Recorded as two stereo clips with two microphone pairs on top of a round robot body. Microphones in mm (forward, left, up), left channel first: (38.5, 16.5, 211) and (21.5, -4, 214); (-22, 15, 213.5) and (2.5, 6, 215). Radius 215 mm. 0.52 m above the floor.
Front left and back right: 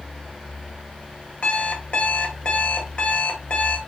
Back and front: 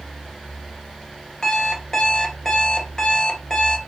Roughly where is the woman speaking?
No woman speaking in this recording.